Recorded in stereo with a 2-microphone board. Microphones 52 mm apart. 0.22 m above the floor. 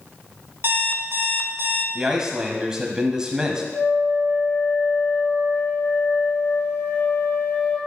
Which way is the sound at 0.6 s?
55° right (ahead or behind).